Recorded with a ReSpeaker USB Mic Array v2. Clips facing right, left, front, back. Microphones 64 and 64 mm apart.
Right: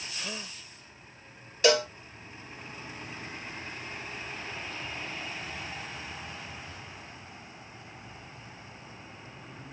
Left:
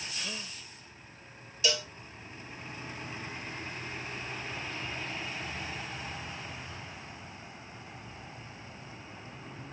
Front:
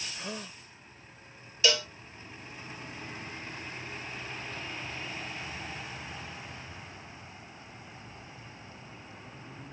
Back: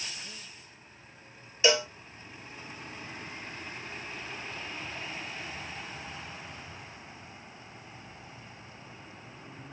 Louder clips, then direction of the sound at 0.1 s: Right 3 dB, front 7 dB; 15° right.